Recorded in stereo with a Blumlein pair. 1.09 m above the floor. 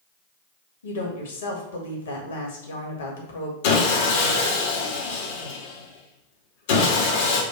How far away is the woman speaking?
About 1.6 m.